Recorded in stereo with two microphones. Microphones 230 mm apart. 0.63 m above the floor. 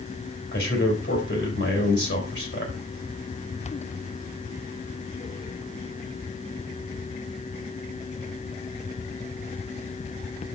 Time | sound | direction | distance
0.5 | a man speaking | 65° left (ahead or behind) | 4.5 m